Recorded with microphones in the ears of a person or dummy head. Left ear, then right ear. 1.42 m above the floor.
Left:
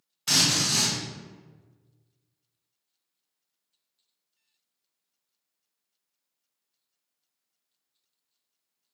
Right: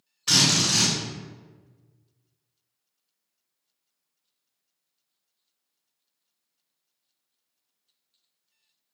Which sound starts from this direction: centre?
A drill, at 0.3 s.